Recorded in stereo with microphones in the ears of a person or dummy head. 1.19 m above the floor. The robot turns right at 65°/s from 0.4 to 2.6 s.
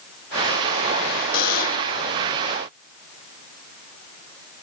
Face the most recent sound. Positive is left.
turn(degrees=165)